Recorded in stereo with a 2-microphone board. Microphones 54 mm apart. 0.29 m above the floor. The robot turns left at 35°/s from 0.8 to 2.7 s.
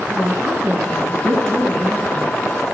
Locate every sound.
0.1 s a woman speaking: 80° right, 5 m; by 2.3 s 135° right, 5 m